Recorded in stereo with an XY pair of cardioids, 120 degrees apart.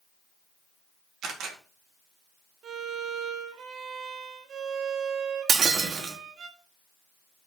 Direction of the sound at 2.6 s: 60° right.